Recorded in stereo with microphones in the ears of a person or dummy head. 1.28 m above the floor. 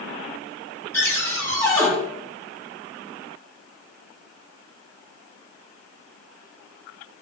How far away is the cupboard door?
About 4.5 m.